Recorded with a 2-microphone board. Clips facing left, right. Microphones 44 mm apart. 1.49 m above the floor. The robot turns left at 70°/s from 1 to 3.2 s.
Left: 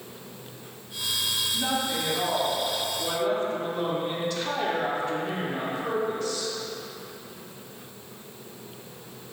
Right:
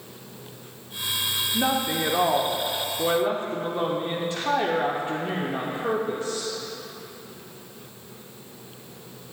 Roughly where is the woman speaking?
Ahead right.